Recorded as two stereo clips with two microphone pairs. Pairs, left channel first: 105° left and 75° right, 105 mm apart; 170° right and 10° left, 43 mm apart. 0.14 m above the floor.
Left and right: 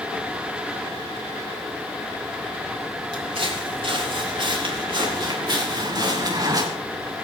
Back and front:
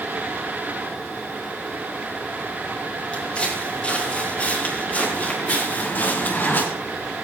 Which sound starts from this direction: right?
Footsteps, at 3.1 s.